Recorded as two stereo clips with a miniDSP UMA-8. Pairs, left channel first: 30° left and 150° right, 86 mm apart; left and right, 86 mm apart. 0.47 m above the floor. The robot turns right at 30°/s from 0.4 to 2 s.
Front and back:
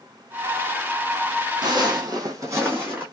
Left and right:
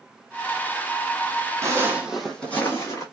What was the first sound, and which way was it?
Footsteps, 140° right.